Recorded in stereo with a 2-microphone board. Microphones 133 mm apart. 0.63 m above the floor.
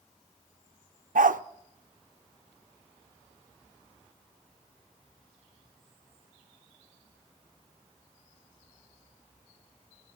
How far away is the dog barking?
About 0.5 m.